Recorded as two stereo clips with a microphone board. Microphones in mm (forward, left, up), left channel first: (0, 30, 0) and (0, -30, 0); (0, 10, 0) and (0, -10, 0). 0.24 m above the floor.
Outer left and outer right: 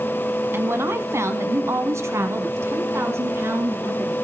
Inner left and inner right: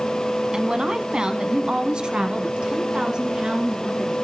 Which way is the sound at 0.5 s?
45° right (ahead or behind).